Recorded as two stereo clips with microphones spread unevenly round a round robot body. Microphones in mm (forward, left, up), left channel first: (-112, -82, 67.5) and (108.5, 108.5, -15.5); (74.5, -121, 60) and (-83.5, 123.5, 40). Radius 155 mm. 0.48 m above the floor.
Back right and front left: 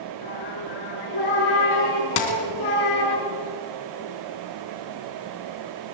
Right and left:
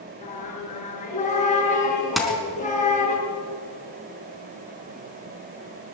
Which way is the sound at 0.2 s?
125° right.